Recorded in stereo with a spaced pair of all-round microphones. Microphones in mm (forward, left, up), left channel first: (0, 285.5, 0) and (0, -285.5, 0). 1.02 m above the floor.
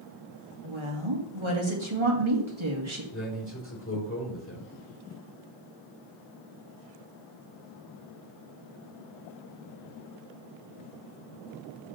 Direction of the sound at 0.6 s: 55° right (ahead or behind).